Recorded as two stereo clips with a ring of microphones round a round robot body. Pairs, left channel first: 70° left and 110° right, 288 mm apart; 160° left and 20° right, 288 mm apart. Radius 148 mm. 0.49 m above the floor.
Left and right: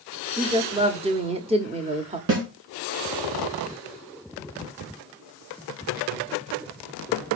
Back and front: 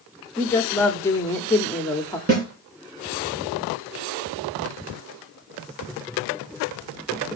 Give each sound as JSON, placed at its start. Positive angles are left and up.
{"t": 0.4, "sound": "a woman speaking", "azimuth_deg": -135, "distance_m": 1.0}
{"t": 2.3, "sound": "a snare drum", "azimuth_deg": -85, "distance_m": 3.0}